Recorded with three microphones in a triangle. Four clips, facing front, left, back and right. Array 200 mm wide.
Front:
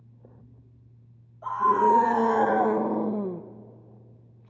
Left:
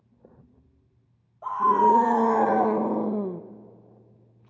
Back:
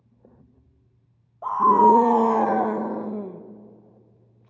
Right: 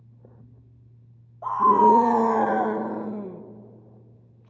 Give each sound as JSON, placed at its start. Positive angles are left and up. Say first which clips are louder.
{"t": 1.4, "sound": "a scream", "louder": "right 3 dB, back 5 dB", "azimuth_deg": -145, "distance_m": 0.9}